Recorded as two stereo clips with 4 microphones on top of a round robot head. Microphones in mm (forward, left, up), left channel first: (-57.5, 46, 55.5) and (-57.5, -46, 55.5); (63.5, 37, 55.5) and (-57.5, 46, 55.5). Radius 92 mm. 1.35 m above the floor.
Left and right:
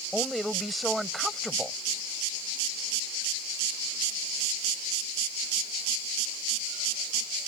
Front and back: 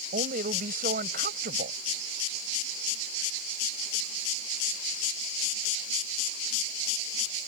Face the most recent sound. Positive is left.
turn(degrees=180)